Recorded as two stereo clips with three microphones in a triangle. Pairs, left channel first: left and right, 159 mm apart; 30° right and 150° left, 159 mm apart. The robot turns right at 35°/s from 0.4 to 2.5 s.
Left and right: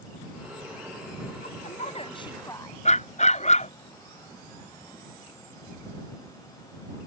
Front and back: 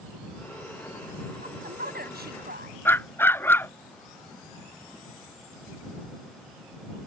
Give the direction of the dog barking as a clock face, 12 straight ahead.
10 o'clock.